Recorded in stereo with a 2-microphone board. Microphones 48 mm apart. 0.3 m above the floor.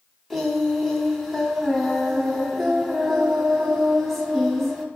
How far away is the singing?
About 0.5 m.